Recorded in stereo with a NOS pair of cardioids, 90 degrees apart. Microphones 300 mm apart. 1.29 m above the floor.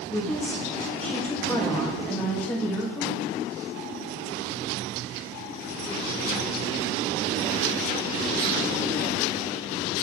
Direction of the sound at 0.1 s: 5° left.